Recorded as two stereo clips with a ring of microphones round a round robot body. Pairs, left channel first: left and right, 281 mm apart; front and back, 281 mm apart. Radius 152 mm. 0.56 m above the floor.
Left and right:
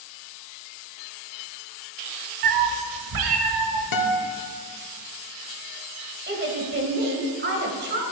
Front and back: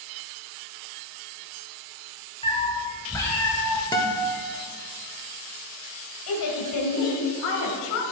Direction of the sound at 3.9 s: 75° left.